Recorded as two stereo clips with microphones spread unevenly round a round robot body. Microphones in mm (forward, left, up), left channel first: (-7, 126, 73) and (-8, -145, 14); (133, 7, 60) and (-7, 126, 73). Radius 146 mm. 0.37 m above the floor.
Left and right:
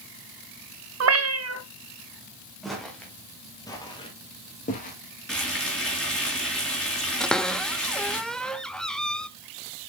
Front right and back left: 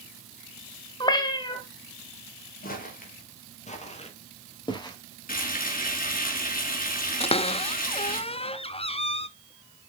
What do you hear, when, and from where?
1.0 s a cat meowing: 110° right, 1.0 m
2.6 s footsteps: straight ahead, 3.5 m; by 5.0 s 30° left, 3 m
5.3 s frying: straight ahead, 4.5 m
7.2 s a cupboard door: 15° right, 0.7 m